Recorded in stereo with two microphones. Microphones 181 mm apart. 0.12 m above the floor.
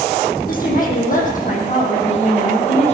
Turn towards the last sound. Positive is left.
turn(degrees=35)  # may be behind; listen again after turning